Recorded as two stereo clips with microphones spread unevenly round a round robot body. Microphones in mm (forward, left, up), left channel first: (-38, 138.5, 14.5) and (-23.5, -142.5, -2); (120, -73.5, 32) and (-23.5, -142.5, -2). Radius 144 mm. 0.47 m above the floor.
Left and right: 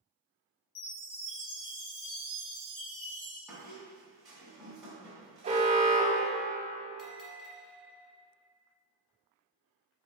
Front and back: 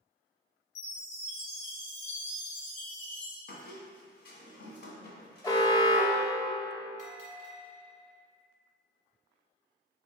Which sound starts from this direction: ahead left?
A chime, at 0.8 s.